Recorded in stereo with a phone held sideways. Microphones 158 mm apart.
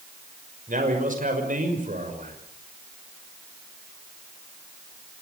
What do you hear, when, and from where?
0.7 s a man speaking: 55° right (ahead or behind), 5.5 m